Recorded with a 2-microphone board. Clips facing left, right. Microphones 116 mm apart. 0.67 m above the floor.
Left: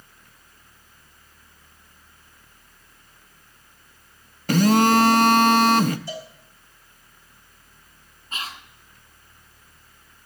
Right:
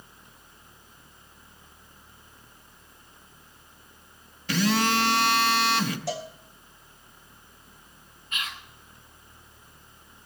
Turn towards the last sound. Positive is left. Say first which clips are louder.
# left 2 dB
turn(degrees=30)  # may be behind; listen again after turning